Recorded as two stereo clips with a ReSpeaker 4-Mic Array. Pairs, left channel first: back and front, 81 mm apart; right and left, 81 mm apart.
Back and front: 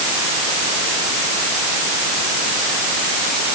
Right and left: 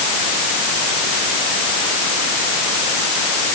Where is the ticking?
No ticking in this recording.